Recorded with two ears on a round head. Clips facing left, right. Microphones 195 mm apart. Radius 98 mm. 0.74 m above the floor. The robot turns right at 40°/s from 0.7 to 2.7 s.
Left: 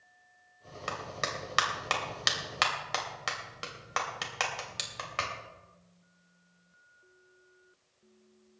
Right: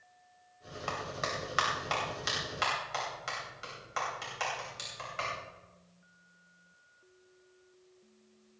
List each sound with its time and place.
0.9 s a clap: 25° left (ahead or behind), 2.5 m; by 5.3 s 80° left, 2.5 m